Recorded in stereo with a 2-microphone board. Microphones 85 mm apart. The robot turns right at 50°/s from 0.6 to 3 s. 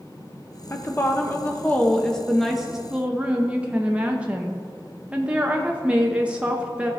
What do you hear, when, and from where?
0.7 s a woman speaking: 90° left, 0.7 m; by 6.9 s 155° right, 0.7 m